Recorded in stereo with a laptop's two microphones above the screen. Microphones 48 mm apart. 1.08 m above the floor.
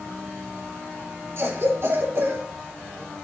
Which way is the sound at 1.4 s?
55° right (ahead or behind).